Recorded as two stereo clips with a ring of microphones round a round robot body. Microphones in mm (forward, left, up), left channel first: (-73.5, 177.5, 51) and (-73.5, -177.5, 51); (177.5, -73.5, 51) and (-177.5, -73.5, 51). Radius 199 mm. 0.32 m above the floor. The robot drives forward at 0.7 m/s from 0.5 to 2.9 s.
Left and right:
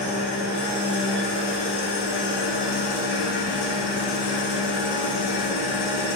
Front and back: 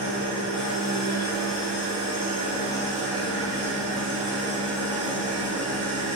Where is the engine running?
45° left, 2.5 m; by 6.2 s 85° left, 1.8 m.